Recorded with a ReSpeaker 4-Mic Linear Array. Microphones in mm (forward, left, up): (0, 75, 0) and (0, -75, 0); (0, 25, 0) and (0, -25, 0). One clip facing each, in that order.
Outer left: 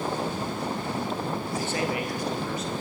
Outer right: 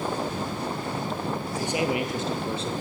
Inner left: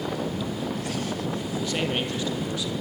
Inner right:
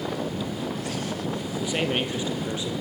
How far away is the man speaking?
About 4 m.